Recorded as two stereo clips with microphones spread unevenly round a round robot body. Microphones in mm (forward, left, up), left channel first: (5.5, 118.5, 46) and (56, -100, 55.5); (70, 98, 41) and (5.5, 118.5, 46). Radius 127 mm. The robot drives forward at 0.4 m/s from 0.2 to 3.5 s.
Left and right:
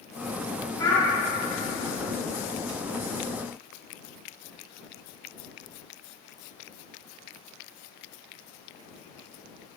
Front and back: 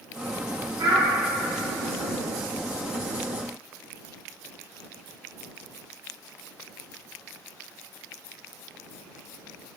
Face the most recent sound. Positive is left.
turn(degrees=180)